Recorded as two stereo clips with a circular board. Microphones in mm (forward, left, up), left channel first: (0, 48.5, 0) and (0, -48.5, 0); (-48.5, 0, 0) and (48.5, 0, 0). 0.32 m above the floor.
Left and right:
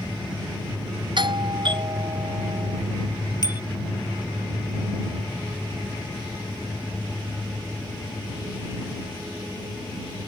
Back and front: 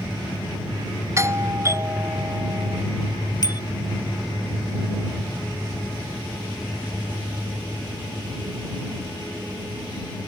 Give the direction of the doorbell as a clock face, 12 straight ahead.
2 o'clock.